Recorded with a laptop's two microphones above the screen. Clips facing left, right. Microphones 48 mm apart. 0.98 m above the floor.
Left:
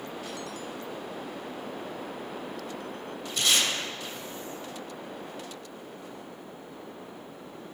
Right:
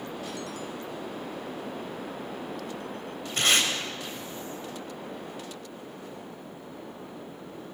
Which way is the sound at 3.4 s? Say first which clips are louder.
Right 2 dB; 40° right (ahead or behind).